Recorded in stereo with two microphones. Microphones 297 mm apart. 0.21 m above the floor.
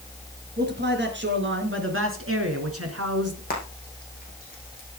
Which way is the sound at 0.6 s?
35° right (ahead or behind).